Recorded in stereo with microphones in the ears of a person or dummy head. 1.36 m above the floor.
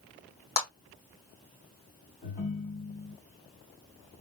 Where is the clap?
50° left (ahead or behind), 1.6 m.